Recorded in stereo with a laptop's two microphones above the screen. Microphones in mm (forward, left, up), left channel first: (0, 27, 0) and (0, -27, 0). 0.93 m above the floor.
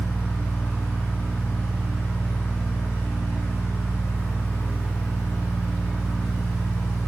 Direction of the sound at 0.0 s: 50° left (ahead or behind).